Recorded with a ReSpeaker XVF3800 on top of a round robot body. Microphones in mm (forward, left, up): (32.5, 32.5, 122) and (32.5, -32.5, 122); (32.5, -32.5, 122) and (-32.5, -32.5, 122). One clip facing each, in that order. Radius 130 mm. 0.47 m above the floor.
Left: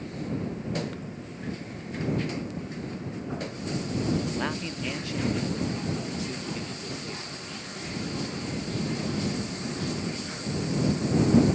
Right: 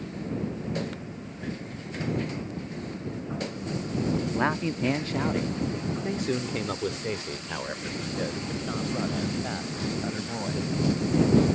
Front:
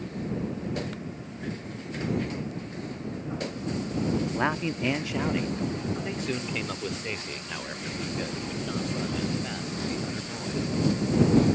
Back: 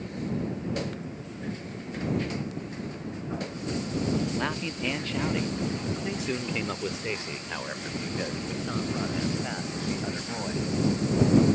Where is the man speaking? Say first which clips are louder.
Right 5 dB, front 3 dB; 50° right; by 10.7 s 110° right.